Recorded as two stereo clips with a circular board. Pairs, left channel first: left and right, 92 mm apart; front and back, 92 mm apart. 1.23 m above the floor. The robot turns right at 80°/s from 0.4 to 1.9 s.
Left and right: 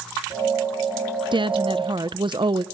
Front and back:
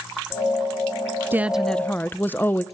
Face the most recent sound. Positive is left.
turn(degrees=-70)